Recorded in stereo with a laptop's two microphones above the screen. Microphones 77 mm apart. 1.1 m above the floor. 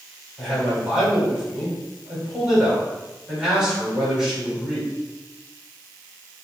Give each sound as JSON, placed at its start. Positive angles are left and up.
{"t": 0.4, "sound": "a man speaking", "side_deg": -10, "distance_m": 4.5}